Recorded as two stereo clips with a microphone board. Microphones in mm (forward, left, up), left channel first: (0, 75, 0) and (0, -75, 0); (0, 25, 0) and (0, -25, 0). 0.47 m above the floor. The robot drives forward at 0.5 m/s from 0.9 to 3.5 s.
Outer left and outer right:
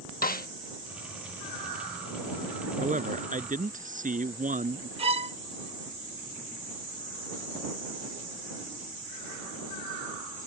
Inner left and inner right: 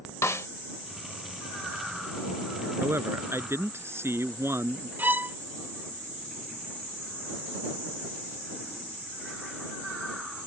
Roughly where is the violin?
Right.